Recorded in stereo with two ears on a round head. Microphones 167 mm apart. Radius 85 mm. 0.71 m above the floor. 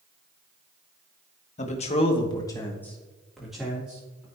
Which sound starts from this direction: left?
A man speaking, at 1.6 s.